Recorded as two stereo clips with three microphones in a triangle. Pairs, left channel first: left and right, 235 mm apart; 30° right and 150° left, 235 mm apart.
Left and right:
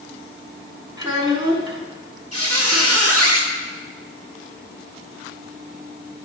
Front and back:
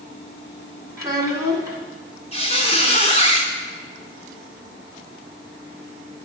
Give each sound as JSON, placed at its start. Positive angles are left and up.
{"t": 1.0, "sound": "a child speaking", "azimuth_deg": -145, "distance_m": 0.9}
{"t": 2.3, "sound": "a squeak", "azimuth_deg": -95, "distance_m": 1.5}